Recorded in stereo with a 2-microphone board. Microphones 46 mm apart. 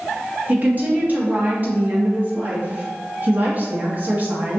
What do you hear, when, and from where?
0.5 s a woman speaking: 40° right (ahead or behind), 1.0 m